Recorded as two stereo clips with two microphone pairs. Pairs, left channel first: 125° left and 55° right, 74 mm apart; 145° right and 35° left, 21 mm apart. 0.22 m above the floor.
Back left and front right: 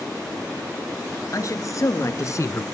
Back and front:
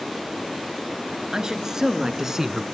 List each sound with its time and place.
1.3 s a man speaking: 90° left, 2.5 m; by 2.6 s 95° left, 1.6 m